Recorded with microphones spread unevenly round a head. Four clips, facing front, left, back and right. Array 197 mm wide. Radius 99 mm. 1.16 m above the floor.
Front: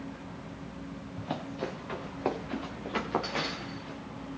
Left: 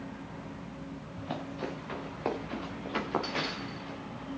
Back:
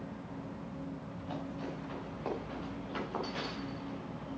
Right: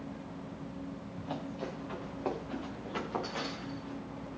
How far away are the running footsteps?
About 5.5 m.